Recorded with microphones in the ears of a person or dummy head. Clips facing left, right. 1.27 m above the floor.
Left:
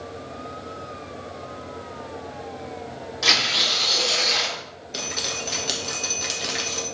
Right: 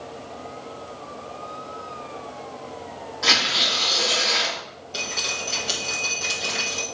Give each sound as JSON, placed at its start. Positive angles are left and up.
{"t": 3.2, "sound": "tearing paper", "side_deg": 40, "distance_m": 3.0}
{"t": 4.9, "sound": "dripping", "side_deg": 15, "distance_m": 1.6}